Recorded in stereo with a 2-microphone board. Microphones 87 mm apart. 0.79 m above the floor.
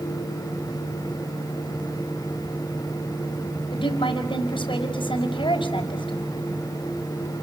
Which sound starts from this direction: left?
A woman speaking, at 3.7 s.